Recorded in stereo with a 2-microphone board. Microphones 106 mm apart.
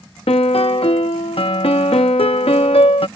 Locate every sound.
0.3 s a piano: 70° left (ahead or behind)